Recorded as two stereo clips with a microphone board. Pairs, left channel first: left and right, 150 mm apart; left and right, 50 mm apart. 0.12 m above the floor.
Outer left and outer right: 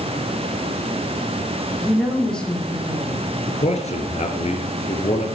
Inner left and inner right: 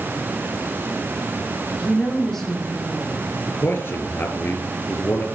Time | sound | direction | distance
1.8 | a woman speaking | 10° left (ahead or behind) | 5.5 m
3.5 | a man speaking | 45° left (ahead or behind) | 2.5 m